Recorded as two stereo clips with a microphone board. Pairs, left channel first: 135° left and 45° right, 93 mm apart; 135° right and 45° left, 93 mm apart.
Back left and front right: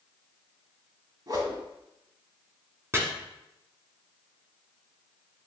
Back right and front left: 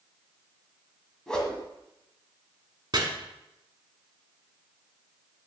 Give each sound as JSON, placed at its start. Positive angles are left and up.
{"t": 1.3, "sound": "a whoosh", "azimuth_deg": -55, "distance_m": 1.3}
{"t": 2.9, "sound": "chopping", "azimuth_deg": 10, "distance_m": 1.3}